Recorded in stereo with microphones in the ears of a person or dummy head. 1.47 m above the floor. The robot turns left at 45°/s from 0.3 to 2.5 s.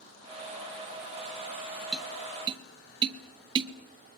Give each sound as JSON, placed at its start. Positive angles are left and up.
{"t": 1.9, "sound": "tapping", "side_deg": 0, "distance_m": 0.9}